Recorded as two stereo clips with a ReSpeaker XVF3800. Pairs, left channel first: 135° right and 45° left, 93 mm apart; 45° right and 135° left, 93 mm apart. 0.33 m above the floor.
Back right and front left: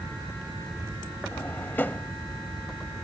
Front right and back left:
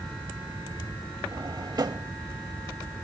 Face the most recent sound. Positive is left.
turn(degrees=160)